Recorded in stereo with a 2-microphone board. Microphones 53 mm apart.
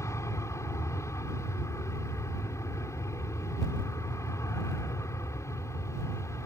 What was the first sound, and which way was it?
An aircraft, 65° left (ahead or behind).